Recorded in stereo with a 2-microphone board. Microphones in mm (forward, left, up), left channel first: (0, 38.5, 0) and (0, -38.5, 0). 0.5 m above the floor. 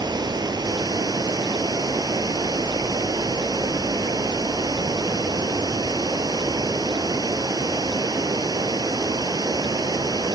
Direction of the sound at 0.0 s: 65° right (ahead or behind).